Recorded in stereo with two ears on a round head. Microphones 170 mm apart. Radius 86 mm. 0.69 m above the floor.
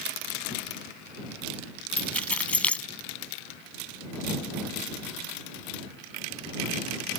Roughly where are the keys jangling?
Centre.